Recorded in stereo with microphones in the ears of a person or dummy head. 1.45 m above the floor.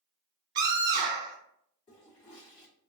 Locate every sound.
0.6 s a scream: 60° right (ahead or behind), 0.9 m
1.9 s a toilet flushing: 30° left (ahead or behind), 1.6 m